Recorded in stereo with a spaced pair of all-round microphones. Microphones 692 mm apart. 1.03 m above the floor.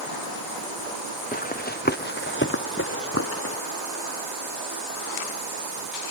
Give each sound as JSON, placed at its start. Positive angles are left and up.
{"t": 1.3, "sound": "running footsteps", "side_deg": 10}